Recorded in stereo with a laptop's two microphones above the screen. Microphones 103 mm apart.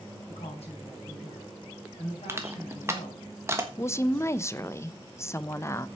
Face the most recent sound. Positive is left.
turn(degrees=25)  # may be behind; listen again after turning